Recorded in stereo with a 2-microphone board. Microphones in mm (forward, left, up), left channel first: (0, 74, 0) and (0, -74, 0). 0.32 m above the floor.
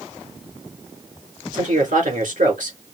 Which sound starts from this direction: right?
A man speaking, at 1.5 s.